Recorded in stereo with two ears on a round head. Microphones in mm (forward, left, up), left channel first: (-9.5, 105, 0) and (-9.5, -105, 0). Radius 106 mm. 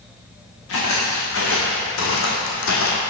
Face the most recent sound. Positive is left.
turn(degrees=60)  # may be behind; listen again after turning